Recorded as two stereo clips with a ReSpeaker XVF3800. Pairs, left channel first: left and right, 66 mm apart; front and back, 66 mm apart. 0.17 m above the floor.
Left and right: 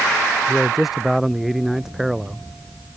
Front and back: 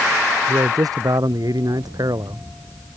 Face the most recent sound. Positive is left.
turn(degrees=180)